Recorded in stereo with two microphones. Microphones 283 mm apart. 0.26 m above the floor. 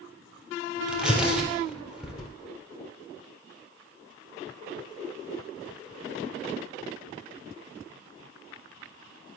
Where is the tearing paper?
5° right (ahead or behind), 3.5 m.